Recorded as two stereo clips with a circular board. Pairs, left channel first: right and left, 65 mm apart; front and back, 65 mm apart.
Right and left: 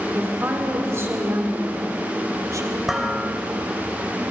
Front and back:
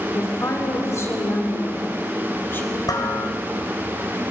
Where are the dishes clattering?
5° left, 3.5 m.